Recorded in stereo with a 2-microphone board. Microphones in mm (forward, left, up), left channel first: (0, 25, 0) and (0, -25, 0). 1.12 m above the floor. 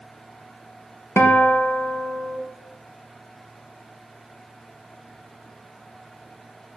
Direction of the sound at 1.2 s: 55° left (ahead or behind).